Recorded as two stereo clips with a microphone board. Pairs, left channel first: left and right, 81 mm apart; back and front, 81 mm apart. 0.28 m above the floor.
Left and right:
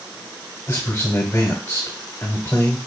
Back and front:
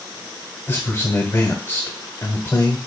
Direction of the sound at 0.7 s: 140° left.